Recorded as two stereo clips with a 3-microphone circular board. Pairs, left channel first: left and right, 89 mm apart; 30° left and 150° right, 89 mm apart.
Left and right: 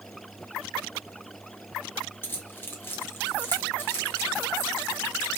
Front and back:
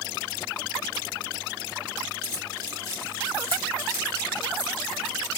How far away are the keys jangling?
About 1.0 m.